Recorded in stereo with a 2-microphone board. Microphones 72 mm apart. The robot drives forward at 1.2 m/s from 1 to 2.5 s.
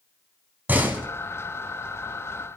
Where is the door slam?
25° right (ahead or behind), 1.9 m.